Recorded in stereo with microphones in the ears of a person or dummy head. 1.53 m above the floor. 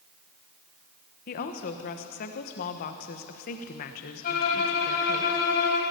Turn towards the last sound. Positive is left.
turn(degrees=50)  # may be behind; listen again after turning